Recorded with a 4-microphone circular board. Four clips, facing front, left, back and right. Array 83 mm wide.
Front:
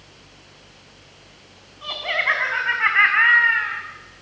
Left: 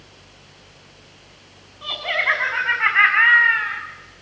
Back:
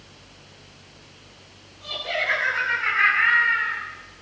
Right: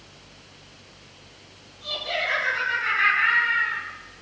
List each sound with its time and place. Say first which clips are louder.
1.8 s laughter: left 6 dB, front 4 dB; 50° left, 6.5 m